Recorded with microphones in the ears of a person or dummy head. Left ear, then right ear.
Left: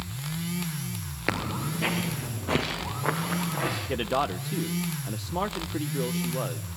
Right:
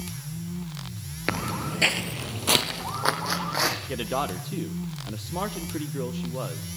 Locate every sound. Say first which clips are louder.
1.3 s footsteps: right 1 dB; centre (ahead or behind), 1.2 m; by 3.8 s 75° right (ahead or behind), 4 m
3.9 s a man speaking: left 1 dB; 10° left (ahead or behind), 0.7 m